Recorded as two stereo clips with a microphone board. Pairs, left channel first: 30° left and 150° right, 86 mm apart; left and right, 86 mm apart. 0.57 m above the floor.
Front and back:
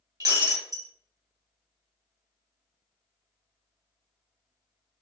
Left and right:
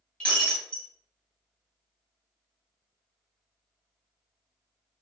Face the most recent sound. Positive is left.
turn(degrees=170)